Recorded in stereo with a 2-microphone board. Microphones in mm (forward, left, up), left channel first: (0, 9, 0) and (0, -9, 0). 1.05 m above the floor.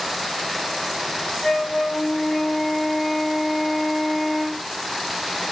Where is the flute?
45° left (ahead or behind), 2.5 m.